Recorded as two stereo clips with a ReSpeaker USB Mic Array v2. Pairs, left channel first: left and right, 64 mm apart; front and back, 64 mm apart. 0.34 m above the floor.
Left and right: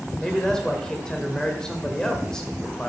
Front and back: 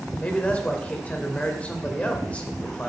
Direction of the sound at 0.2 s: 25° left.